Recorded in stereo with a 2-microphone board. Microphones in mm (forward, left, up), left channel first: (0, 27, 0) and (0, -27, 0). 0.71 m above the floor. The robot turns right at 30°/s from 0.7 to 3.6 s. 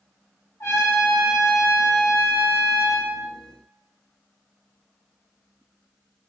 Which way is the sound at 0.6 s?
95° left.